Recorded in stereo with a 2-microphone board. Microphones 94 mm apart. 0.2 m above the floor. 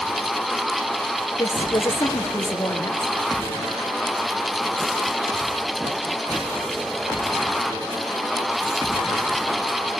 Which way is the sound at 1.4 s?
30° left (ahead or behind).